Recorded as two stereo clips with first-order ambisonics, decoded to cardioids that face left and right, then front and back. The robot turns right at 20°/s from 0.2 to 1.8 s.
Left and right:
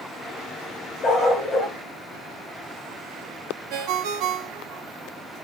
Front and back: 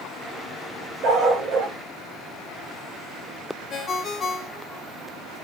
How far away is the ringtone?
About 1.0 m.